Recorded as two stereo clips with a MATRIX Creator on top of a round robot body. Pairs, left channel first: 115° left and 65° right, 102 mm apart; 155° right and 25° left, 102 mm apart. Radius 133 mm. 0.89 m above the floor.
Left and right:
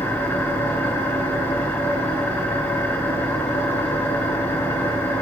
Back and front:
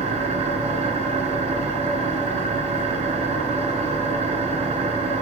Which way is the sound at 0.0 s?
40° left.